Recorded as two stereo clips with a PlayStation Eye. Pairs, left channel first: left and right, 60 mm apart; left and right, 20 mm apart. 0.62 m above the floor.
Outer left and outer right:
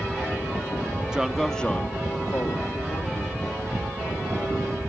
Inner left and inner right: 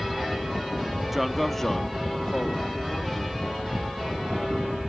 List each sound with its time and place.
1.1 s a man speaking: 10° right (ahead or behind), 0.7 m; by 4.7 s 60° left (ahead or behind), 2.5 m